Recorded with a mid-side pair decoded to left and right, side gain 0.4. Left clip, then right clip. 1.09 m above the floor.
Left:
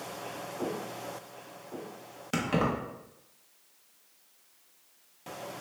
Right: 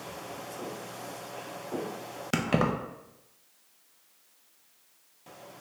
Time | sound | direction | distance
2.3 | keys jangling | 45° right | 0.6 m